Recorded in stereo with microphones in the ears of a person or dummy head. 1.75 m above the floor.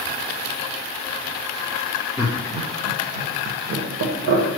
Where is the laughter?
10° right (ahead or behind), 0.5 m; by 4.6 s 70° right (ahead or behind), 1.3 m.